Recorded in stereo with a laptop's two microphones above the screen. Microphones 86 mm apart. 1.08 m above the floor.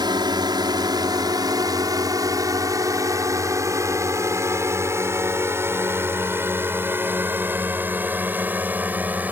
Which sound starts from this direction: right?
A drone, at 0.0 s.